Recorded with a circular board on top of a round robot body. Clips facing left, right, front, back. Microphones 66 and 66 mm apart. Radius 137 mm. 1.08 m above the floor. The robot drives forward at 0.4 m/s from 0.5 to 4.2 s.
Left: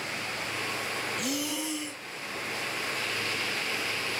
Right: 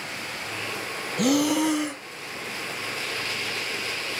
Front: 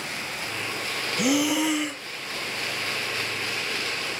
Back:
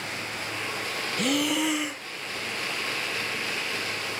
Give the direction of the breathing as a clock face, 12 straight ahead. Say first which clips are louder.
Right 11 dB, front 3 dB; 3 o'clock.